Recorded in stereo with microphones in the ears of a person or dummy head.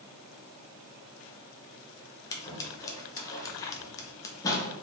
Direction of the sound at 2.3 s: 20° left (ahead or behind).